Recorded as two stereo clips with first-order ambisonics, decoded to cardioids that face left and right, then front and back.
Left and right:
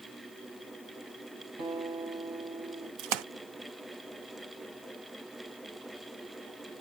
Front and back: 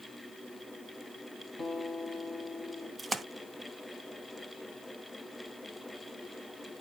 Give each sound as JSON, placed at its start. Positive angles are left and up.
{"t": 1.6, "sound": "a guitar", "azimuth_deg": -95, "distance_m": 4.5}
{"t": 3.0, "sound": "a splash", "azimuth_deg": -100, "distance_m": 0.6}